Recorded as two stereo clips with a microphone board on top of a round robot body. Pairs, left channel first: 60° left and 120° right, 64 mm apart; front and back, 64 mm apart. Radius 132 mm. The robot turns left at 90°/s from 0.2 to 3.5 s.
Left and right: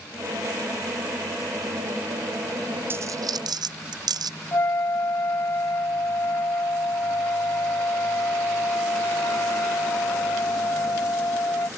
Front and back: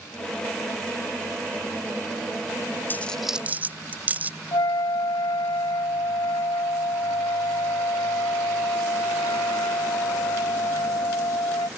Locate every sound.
2.9 s a dropped coin: 60° right; by 4.3 s 115° right
4.5 s a flute: 10° left